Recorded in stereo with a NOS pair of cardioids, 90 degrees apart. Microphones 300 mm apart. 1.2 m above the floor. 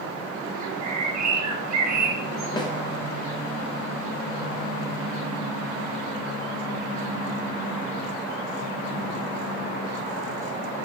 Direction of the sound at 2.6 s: 15° left.